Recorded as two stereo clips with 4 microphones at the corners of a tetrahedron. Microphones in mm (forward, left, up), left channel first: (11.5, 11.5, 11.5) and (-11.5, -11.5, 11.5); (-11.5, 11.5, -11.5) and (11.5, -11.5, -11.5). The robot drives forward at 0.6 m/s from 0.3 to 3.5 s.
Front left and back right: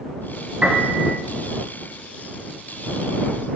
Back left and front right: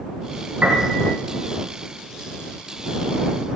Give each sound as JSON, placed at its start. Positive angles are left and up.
{"t": 0.6, "sound": "a piano", "azimuth_deg": -80, "distance_m": 3.0}